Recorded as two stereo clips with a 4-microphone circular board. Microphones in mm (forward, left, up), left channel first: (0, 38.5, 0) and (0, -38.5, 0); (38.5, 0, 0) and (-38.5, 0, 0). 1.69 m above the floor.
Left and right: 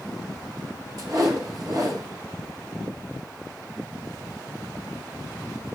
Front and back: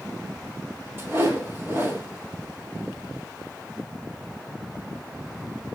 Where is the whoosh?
120° right, 4.5 m.